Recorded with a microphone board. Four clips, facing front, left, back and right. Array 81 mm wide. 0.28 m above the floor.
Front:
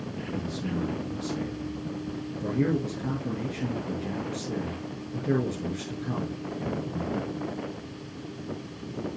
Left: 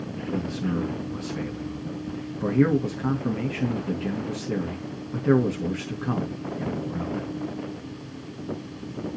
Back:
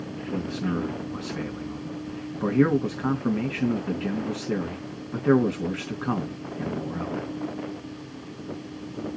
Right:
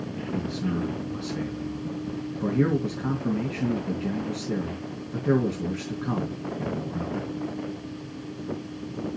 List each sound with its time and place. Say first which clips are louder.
0.3 s a man speaking: left 2 dB, back 5 dB; 170° left, 3.5 m